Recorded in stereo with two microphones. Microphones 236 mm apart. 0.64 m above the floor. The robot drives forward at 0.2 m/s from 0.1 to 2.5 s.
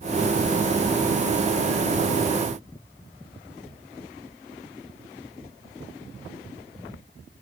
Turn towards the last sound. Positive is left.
No sound to turn to.